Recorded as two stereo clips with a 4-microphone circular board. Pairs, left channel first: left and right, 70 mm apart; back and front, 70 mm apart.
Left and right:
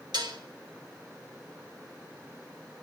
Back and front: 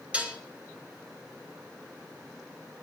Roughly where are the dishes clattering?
Right.